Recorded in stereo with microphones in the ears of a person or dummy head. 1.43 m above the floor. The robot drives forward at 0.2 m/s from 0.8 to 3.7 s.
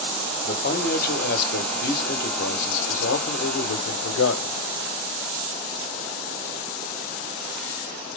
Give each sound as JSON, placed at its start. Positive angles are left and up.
{"t": 0.4, "sound": "a man speaking", "side_deg": 50, "distance_m": 1.1}